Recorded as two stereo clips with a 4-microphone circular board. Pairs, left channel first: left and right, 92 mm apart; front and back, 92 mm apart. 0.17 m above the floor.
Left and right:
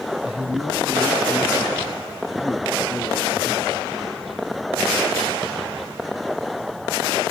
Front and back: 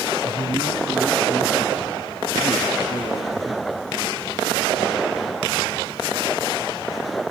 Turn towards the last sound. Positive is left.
turn(degrees=90)